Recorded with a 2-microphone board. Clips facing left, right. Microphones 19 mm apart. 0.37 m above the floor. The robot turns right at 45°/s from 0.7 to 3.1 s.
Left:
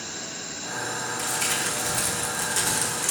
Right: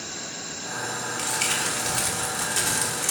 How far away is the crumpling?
About 1.7 m.